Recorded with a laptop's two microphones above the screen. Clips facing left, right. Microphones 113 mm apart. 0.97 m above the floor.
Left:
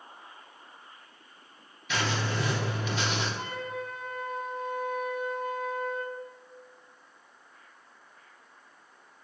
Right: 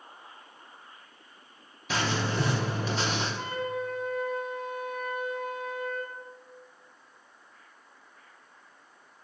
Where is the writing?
35° right (ahead or behind), 0.6 m.